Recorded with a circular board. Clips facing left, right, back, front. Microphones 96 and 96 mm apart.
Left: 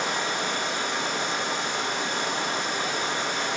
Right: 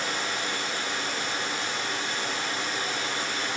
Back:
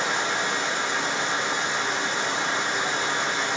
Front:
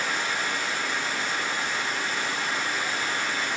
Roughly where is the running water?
Behind left.